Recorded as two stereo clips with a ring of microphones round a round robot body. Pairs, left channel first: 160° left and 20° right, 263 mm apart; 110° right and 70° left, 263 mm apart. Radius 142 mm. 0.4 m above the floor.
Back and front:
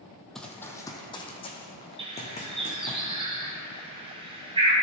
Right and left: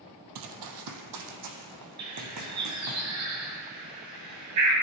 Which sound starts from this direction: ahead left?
A bird, at 2.0 s.